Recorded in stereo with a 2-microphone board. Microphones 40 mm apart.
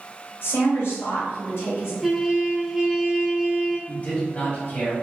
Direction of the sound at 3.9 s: 35° left (ahead or behind).